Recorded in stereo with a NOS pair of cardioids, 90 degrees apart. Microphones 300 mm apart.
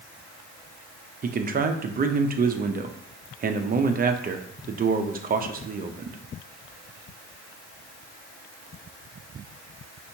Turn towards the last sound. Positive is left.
turn(degrees=-30)